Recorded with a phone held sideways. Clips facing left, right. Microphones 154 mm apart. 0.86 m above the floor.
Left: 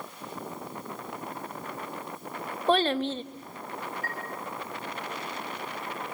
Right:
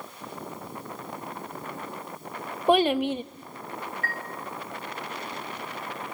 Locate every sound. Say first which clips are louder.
2.7 s a child speaking: right 4 dB; 15° right (ahead or behind), 1.0 m
4.0 s a chime: right 1 dB; 70° right (ahead or behind), 3 m